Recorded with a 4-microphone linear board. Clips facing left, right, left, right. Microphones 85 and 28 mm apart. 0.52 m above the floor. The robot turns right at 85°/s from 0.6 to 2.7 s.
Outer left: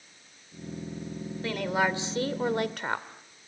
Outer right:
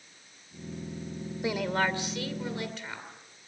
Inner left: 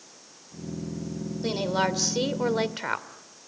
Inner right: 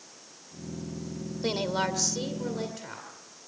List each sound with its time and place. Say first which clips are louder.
1.4 s a woman speaking: outer left 1 dB, inner left 2 dB; 20° right, 2 m; by 3.1 s 90° left, 2 m